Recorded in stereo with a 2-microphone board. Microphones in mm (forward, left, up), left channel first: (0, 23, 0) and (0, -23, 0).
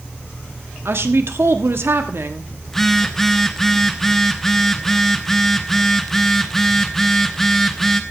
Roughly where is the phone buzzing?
Centre.